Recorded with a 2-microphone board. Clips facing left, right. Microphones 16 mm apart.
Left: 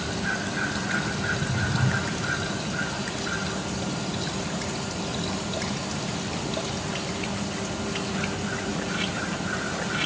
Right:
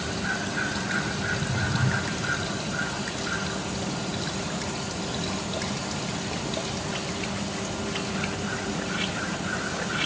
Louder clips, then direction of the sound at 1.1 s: Left 1 dB; 5° right (ahead or behind).